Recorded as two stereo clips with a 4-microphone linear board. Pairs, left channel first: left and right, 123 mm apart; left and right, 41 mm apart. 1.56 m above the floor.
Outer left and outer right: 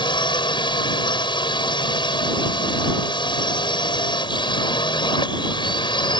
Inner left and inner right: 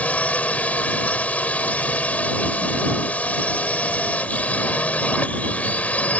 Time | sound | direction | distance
0.0 | a drone | 40° left (ahead or behind) | ?